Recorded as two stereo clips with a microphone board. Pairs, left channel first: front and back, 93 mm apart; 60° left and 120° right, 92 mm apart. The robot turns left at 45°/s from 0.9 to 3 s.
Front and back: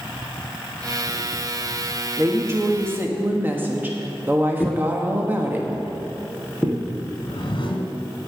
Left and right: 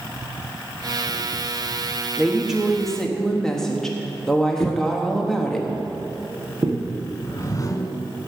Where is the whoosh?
10° left, 1.3 m.